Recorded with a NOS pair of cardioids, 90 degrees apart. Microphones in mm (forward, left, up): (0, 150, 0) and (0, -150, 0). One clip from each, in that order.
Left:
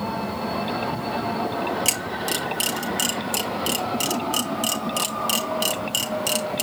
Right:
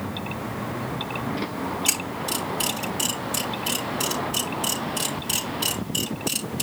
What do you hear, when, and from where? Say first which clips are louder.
1.9 s a camera shutter: left 2 dB; 65° left, 4.5 m